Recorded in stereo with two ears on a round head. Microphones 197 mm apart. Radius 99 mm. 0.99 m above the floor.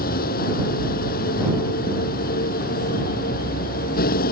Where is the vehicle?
40° left (ahead or behind).